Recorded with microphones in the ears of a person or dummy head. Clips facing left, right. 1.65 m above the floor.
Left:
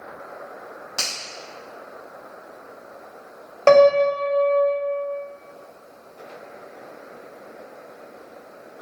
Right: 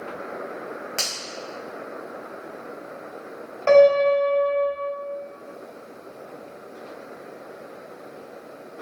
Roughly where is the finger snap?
Right.